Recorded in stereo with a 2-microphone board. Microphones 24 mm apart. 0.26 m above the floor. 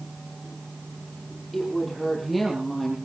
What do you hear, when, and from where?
1.5 s a woman speaking: 5° left (ahead or behind), 9.5 m; by 3.0 s 5° right (ahead or behind), 8.5 m